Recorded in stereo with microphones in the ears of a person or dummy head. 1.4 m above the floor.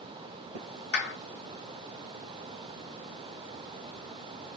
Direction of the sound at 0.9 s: 60° left (ahead or behind).